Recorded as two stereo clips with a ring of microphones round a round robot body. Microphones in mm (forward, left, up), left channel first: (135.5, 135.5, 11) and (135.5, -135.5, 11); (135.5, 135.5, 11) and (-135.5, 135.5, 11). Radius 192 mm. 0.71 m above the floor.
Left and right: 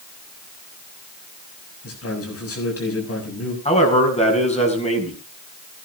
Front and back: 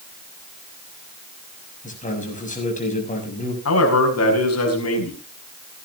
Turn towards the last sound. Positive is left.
turn(degrees=25)